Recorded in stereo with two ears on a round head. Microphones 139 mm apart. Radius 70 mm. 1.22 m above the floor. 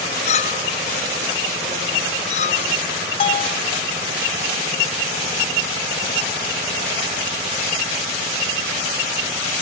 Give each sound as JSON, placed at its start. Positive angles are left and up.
{"t": 0.3, "sound": "a clink", "side_deg": 45}
{"t": 3.2, "sound": "a bell", "side_deg": 35}